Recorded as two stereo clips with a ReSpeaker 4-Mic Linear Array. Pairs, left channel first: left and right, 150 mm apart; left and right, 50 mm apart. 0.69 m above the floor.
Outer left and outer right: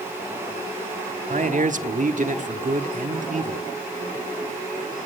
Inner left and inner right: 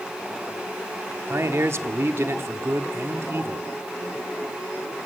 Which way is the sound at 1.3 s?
55° right (ahead or behind).